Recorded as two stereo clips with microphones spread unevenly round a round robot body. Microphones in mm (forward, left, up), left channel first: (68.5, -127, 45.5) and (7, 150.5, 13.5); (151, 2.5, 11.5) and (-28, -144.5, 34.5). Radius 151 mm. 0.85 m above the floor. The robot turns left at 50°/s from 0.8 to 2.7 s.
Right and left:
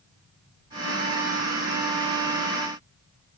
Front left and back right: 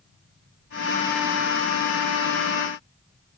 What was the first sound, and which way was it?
Only background noise.